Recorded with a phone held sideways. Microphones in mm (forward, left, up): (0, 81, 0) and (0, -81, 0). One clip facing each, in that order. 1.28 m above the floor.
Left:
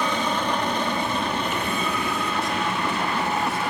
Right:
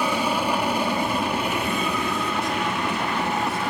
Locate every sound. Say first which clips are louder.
0.0 s an aircraft: right 1 dB; 10° right (ahead or behind)